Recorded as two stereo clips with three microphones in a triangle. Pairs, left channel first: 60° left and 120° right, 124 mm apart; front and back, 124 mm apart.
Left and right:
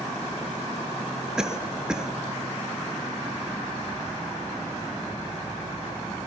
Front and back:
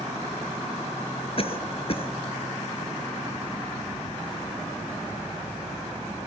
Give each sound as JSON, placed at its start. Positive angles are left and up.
{"t": 1.4, "sound": "a cough", "azimuth_deg": -35, "distance_m": 3.0}